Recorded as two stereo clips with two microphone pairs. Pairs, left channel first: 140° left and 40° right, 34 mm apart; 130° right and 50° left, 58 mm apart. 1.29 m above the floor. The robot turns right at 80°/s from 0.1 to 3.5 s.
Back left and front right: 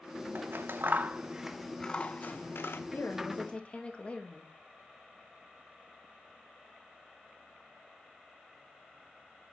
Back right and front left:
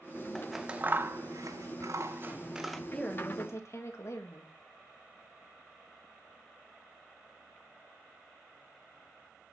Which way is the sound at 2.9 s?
150° left.